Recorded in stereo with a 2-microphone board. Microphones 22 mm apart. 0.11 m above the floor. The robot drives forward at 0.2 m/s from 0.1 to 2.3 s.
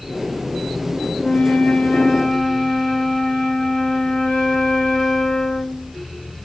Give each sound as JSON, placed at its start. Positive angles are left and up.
{"t": 1.2, "sound": "a flute", "side_deg": 45, "distance_m": 1.9}